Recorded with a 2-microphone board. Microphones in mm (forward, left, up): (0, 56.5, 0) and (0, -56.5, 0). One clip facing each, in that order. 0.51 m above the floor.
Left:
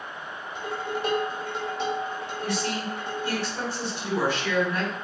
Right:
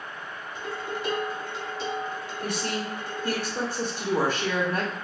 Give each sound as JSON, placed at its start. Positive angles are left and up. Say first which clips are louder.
{"t": 0.6, "sound": "dishes clattering", "louder": "left 3 dB", "side_deg": 55, "distance_m": 1.3}
{"t": 2.4, "sound": "a woman speaking", "louder": "left 1 dB", "side_deg": -40, "distance_m": 1.3}